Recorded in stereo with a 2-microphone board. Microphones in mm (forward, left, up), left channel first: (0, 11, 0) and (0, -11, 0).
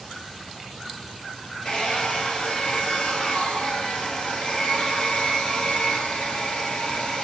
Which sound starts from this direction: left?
A hair dryer, at 1.6 s.